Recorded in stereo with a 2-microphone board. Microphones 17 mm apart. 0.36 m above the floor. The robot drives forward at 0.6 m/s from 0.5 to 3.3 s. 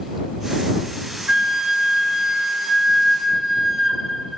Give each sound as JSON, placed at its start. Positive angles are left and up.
{"t": 1.3, "sound": "a flute", "side_deg": -50, "distance_m": 0.8}